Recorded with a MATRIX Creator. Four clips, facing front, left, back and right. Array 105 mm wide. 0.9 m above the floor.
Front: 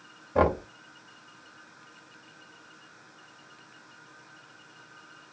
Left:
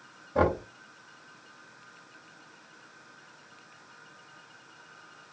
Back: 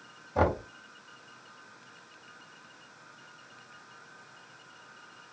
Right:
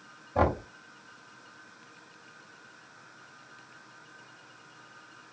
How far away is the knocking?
About 1.5 m.